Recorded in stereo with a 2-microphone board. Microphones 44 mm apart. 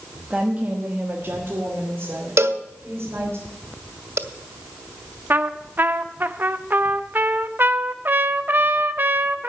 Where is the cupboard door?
No cupboard door in this recording.